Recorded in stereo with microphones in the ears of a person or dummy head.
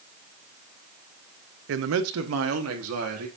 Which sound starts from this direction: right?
A man speaking, at 1.7 s.